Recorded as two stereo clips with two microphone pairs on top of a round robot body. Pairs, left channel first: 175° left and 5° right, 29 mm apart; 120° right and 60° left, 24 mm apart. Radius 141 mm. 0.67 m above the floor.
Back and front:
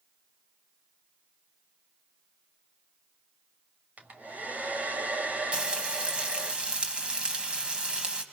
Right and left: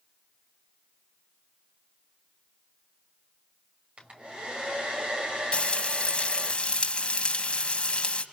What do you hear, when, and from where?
4.0 s a hair dryer: 25° left, 5.5 m
5.5 s frying: 65° right, 2.5 m